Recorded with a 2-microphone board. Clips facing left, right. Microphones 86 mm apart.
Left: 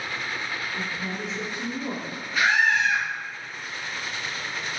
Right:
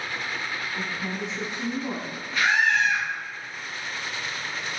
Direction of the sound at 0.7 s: 20° right (ahead or behind).